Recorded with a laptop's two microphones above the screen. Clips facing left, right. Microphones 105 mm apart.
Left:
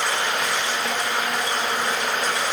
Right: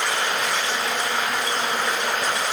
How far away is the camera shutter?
I don't hear a camera shutter.